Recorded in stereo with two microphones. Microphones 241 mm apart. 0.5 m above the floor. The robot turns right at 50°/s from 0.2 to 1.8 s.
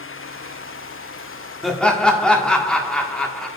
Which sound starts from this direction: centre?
Laughter, at 1.6 s.